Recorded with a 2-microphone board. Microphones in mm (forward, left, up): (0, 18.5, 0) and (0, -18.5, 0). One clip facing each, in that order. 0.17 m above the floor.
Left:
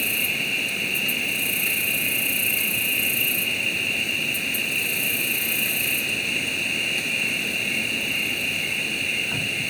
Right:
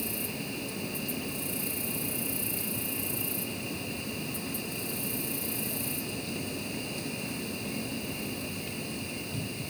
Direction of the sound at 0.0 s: 65° left (ahead or behind).